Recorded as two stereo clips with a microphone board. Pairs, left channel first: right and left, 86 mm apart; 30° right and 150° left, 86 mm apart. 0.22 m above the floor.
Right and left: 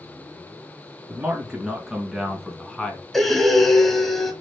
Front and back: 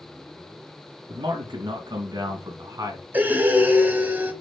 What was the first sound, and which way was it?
A man speaking, 160° left.